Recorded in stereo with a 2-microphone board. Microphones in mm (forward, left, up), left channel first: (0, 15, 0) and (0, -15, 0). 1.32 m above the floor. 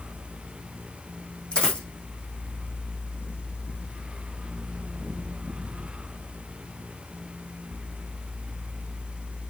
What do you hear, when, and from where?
1.5 s a dropped coin: 35° left (ahead or behind), 4 m